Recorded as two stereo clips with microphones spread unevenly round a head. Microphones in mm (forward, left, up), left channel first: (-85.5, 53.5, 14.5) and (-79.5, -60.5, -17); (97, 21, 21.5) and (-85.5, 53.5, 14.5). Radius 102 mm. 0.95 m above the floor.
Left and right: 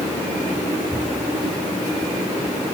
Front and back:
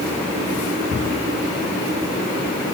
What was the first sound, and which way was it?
Only background noise.